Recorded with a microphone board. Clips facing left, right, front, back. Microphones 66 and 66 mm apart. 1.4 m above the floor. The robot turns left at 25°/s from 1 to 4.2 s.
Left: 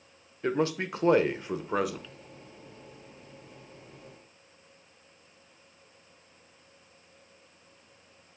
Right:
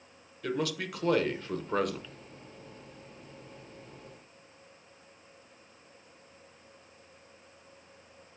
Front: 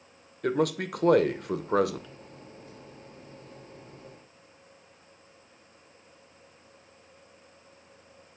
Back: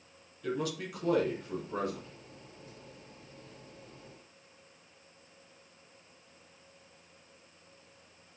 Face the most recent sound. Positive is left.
turn(degrees=-50)